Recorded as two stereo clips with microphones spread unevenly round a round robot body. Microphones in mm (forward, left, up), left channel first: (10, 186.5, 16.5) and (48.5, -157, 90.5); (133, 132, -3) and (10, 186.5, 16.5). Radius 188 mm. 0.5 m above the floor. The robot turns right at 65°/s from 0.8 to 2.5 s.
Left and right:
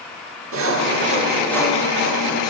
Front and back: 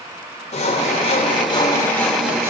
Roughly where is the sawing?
Ahead right.